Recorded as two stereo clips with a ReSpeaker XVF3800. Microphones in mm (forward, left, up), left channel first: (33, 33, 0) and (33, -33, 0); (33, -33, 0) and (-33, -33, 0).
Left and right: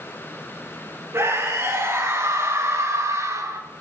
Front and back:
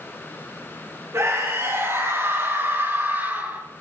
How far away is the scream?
About 4.5 m.